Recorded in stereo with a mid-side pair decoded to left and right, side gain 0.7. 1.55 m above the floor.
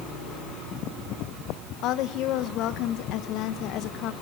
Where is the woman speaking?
60° left, 1.2 m.